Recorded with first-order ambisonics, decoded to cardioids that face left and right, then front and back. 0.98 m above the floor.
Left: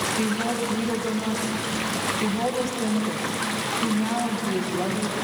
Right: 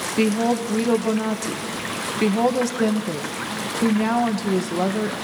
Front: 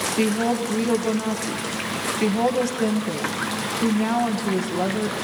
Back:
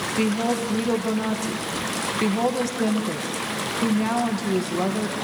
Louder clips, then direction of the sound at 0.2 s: Right 4 dB, even; 90° right.